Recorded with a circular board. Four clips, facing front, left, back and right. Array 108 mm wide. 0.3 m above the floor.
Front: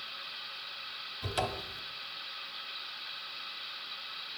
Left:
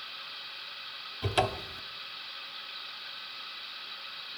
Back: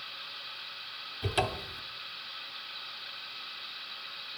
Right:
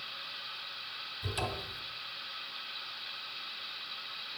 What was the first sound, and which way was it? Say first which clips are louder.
A cupboard door: left 8 dB, back 3 dB; 100° left.